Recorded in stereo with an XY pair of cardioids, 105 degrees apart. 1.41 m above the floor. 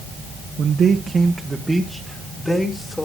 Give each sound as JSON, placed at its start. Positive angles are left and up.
{"t": 0.6, "sound": "a man speaking", "azimuth_deg": -60, "distance_m": 1.0}